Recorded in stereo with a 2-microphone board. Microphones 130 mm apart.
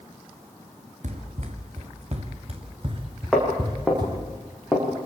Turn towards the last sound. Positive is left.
turn(degrees=0)  # may be behind; listen again after turning